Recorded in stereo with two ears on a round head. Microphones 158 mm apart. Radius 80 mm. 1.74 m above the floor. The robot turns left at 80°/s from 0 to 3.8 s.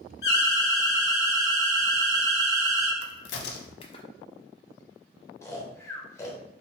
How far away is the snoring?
About 0.8 m.